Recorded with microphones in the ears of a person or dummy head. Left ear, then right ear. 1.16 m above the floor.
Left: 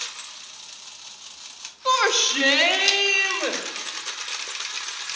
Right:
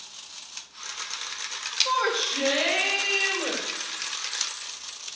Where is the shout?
80° left, 1.5 m.